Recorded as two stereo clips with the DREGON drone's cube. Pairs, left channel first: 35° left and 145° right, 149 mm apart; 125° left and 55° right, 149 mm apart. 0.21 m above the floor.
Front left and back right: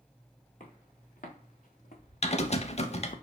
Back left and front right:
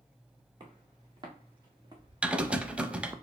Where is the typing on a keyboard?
25° left, 0.5 m.